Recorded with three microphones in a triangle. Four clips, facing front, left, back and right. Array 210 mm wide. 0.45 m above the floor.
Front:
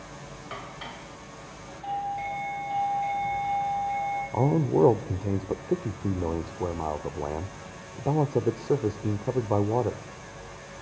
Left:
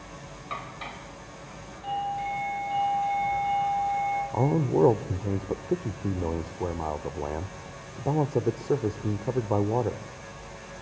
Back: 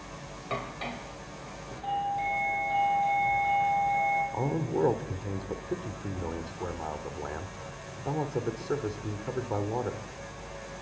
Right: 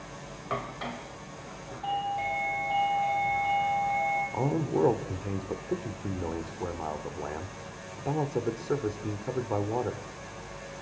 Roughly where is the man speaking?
Ahead left.